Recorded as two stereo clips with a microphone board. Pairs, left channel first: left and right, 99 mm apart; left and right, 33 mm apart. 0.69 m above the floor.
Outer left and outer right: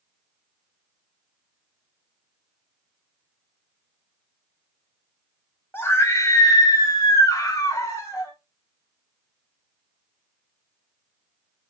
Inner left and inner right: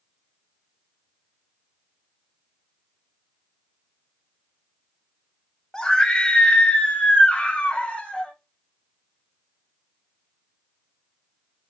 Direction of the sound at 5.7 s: 20° left (ahead or behind).